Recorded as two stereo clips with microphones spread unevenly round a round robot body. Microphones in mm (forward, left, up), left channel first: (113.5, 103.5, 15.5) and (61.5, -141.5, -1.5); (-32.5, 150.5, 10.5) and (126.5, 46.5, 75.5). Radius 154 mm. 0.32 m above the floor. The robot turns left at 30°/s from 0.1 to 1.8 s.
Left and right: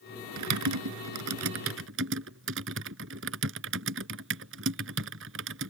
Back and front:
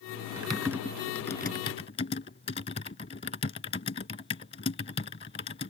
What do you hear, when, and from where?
0.4 s typing on a keyboard: 110° right; by 5.7 s 155° right